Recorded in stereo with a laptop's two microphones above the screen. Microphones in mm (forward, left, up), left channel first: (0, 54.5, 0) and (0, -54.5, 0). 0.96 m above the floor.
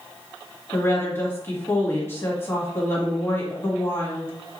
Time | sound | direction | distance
0.7 | a woman speaking | 20° left (ahead or behind) | 1.6 m